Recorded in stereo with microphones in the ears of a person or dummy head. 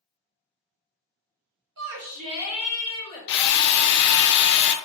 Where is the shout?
65° right (ahead or behind), 1.0 m; by 3.3 s 25° left (ahead or behind), 1.6 m.